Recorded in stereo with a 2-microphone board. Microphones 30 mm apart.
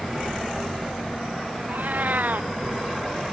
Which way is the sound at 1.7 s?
75° right (ahead or behind).